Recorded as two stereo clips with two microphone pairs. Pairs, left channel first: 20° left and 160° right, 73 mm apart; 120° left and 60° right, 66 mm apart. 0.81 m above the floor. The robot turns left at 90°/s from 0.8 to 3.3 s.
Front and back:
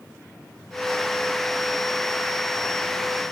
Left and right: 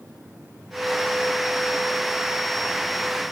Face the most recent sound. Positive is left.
No sound to turn to.